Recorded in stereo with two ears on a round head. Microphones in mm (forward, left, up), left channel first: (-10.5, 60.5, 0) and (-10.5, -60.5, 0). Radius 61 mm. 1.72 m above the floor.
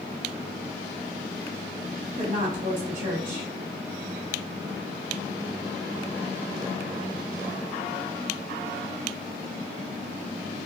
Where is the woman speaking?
65° right (ahead or behind), 1.7 m.